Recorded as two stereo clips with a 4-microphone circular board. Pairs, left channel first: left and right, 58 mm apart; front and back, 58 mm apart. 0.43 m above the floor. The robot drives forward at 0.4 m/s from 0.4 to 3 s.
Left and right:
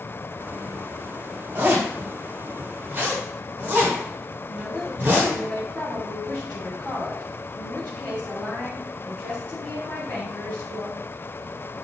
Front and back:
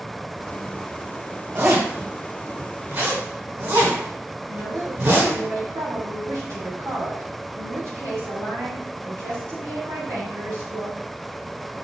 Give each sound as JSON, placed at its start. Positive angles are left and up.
{"t": 1.6, "sound": "a zipper", "azimuth_deg": -145, "distance_m": 3.0}
{"t": 4.5, "sound": "a woman speaking", "azimuth_deg": 160, "distance_m": 2.5}